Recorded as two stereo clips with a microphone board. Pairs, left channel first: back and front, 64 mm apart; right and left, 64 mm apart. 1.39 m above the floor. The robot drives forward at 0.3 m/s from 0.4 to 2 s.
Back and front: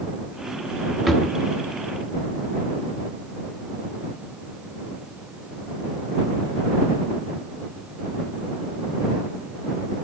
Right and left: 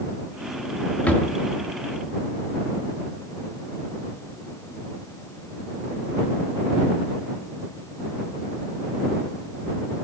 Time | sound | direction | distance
1.1 | a drawer | 90° right | 0.8 m